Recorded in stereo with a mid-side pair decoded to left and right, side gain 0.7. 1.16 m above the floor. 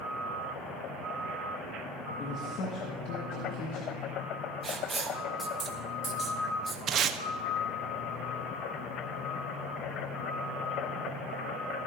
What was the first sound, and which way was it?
A man speaking, 50° left.